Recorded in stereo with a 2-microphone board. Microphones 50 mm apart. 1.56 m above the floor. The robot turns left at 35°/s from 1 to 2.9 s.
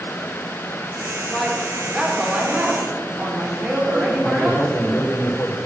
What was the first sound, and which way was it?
A woman speaking, 10° left.